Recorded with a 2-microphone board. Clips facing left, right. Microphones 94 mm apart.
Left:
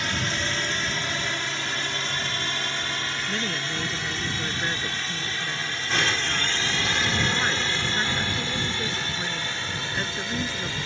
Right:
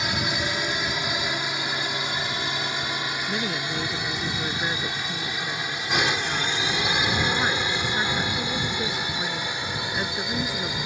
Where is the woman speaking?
10° right (ahead or behind).